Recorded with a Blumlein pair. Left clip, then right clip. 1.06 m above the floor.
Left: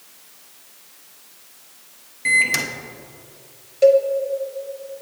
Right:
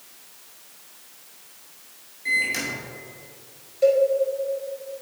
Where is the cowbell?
70° left, 0.8 m.